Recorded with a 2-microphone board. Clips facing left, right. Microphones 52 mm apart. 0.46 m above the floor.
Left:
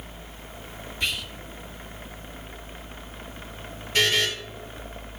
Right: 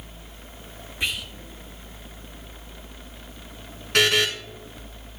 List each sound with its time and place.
1.0 s whispering: 20° right (ahead or behind), 1.3 m
3.9 s a buzzer: 80° right, 1.7 m